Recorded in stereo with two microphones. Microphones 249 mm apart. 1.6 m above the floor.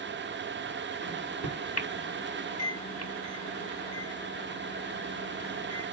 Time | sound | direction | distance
1.0 | a microwave | 75° left (ahead or behind) | 1.6 m